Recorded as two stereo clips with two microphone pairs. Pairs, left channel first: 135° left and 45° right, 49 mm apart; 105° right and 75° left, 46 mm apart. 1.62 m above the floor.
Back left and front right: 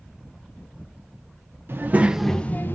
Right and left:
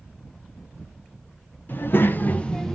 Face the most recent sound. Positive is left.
turn(degrees=175)